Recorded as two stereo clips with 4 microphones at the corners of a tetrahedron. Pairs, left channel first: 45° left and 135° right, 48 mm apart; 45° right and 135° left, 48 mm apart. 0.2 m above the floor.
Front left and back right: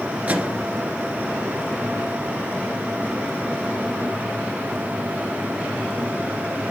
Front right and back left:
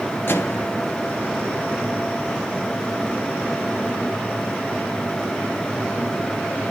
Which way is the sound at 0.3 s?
80° right.